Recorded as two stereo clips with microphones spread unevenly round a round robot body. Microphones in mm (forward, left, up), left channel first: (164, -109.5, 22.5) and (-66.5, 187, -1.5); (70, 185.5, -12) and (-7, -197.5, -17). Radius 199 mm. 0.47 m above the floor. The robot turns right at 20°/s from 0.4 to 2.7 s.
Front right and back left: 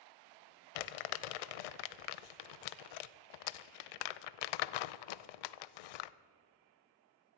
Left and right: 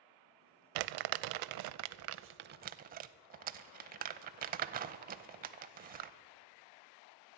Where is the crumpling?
70° right, 0.5 m; by 6.1 s 30° right, 0.5 m.